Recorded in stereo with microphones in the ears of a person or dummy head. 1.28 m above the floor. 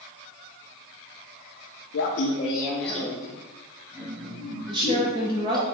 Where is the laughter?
60° left (ahead or behind), 0.5 m; by 5.7 s 25° right (ahead or behind), 2.5 m.